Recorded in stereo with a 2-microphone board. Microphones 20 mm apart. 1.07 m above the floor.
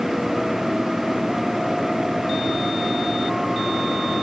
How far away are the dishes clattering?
No dishes clattering in this recording.